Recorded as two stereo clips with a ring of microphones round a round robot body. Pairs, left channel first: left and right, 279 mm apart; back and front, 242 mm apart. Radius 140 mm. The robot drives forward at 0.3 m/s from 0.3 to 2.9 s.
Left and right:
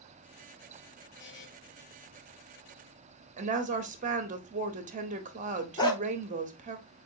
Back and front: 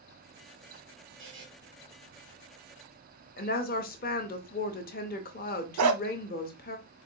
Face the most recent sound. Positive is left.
turn(degrees=15)